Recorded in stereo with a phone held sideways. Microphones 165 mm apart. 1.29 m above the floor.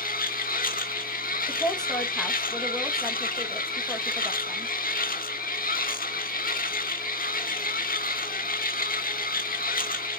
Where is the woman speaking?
5° left (ahead or behind), 1.4 m.